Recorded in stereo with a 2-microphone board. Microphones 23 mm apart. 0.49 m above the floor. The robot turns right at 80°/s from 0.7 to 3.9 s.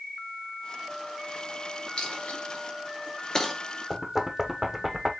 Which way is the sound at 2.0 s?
45° left (ahead or behind).